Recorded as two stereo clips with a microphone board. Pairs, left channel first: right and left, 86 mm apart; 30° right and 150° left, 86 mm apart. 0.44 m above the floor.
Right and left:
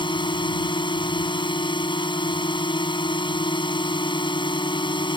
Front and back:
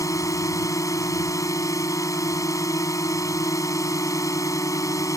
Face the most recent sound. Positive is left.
turn(degrees=-80)